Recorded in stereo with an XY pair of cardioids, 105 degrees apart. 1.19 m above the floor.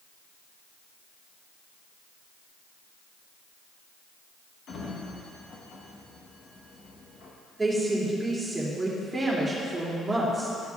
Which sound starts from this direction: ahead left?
A sliding door, at 4.7 s.